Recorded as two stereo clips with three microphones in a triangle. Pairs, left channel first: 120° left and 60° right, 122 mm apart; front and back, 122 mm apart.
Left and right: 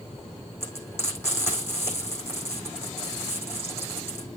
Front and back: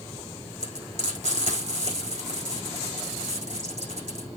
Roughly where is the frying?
Behind.